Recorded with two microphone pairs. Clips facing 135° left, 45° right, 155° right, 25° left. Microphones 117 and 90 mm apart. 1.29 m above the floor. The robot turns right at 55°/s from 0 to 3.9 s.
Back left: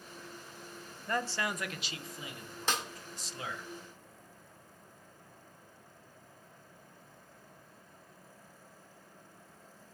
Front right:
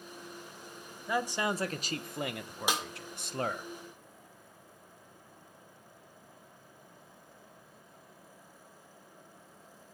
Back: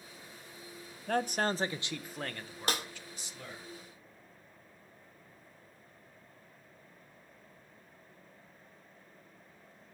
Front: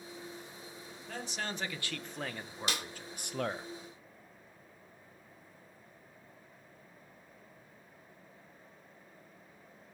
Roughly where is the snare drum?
Behind right.